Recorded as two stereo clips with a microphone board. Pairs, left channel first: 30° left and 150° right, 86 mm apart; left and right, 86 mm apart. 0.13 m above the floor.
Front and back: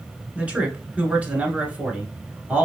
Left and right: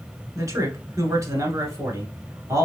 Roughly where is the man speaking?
Right.